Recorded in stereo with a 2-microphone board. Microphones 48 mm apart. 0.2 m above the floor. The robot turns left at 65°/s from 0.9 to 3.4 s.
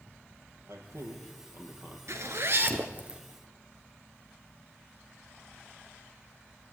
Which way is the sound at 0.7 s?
80° right.